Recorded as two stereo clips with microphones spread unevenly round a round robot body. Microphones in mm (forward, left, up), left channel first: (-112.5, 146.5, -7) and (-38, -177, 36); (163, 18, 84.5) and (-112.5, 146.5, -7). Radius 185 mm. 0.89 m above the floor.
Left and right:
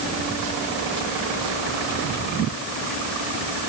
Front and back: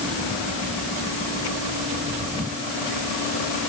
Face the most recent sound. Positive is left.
No sound to turn to.